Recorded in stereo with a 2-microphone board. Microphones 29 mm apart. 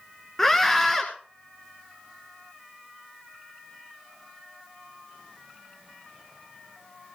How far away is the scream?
About 1.9 m.